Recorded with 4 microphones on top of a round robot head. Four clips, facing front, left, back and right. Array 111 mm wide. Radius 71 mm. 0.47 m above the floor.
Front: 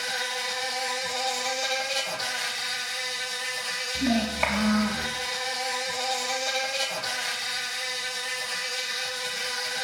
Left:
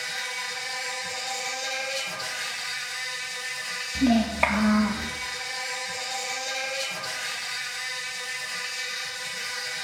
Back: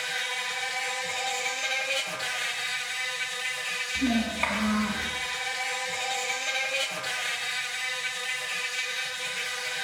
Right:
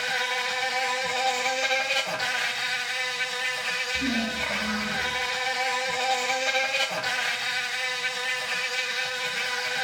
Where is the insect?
75° right, 1.1 m.